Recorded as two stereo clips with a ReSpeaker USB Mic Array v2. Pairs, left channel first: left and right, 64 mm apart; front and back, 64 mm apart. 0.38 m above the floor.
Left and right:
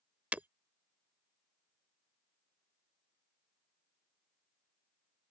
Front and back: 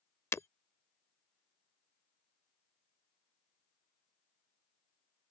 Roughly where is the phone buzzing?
I don't hear a phone buzzing.